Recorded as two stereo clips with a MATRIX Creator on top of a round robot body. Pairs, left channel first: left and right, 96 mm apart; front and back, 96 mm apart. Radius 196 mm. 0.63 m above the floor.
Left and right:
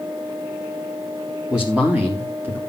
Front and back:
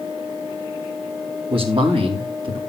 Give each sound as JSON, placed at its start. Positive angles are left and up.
{"t": 1.5, "sound": "a man speaking", "azimuth_deg": -170, "distance_m": 2.5}